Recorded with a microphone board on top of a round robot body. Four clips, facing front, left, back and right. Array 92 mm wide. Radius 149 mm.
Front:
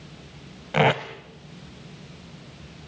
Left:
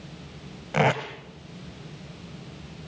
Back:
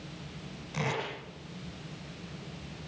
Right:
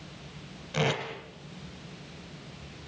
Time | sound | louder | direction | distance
0.7 | tape being pulled | left 6 dB, front 13 dB | 35° left | 0.8 m